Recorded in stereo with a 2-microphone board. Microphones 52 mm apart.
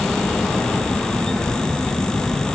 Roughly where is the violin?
No violin in this recording.